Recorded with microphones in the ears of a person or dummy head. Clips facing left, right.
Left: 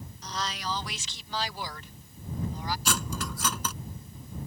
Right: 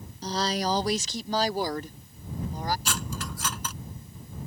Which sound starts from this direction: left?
Cutlery clinking, at 2.9 s.